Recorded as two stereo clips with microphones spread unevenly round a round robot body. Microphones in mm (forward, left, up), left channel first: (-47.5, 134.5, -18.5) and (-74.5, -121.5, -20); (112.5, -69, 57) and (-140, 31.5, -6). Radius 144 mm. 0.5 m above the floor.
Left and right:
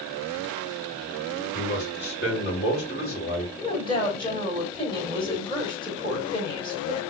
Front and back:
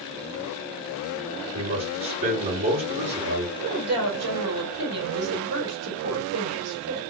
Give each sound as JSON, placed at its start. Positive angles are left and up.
{"t": 1.5, "sound": "a man speaking", "azimuth_deg": 130, "distance_m": 2.5}
{"t": 3.6, "sound": "a woman speaking", "azimuth_deg": 155, "distance_m": 2.5}